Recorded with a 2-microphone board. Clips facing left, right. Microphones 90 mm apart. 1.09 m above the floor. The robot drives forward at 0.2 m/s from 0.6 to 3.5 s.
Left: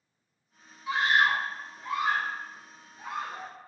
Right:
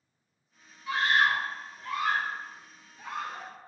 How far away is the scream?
About 0.8 m.